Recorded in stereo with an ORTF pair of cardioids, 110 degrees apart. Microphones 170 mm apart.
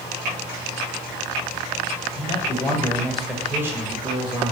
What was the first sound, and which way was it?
A man speaking, 35° left.